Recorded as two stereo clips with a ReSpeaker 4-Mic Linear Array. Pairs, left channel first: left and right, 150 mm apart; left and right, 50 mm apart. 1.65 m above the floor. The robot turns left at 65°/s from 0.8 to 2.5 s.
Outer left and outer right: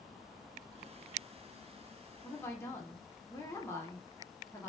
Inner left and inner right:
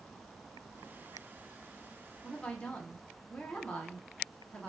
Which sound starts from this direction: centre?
A woman speaking, at 2.2 s.